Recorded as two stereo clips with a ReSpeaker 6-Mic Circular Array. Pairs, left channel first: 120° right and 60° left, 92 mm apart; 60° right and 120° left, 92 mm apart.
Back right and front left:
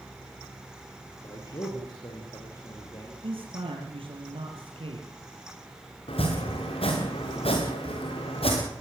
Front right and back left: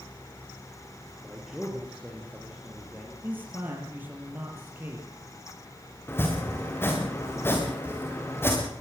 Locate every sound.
1.2 s a man speaking: 155° right, 4 m; by 3.1 s 160° right, 6 m
3.2 s a man speaking: 50° left, 5 m
6.1 s chopping: 125° right, 5.5 m